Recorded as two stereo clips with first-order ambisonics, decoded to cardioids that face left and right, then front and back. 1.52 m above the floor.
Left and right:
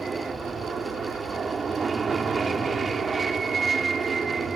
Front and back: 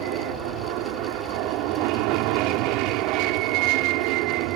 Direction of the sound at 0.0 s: 160° right.